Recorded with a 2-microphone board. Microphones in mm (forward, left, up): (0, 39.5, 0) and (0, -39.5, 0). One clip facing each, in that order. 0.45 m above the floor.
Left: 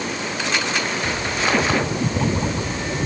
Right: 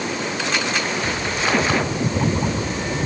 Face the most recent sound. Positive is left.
No sound to turn to.